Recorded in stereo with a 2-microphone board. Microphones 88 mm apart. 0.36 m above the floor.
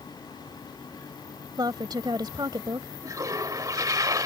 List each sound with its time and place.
1.6 s a woman speaking: 55° right (ahead or behind)
3.0 s a toilet flushing: 45° right (ahead or behind)